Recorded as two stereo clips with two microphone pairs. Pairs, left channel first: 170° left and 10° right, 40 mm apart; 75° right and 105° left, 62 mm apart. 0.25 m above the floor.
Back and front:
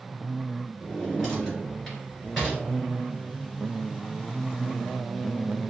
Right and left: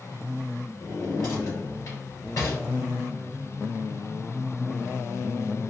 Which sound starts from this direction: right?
A drawer, at 0.8 s.